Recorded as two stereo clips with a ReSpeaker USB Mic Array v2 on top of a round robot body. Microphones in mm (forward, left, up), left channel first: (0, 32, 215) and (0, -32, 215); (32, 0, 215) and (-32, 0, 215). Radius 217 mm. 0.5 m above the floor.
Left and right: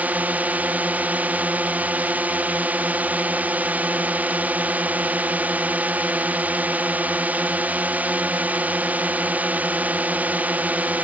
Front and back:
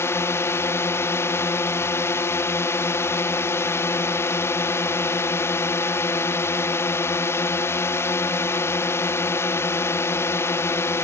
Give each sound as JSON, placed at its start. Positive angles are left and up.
{"t": 0.0, "sound": "a drone", "azimuth_deg": -30}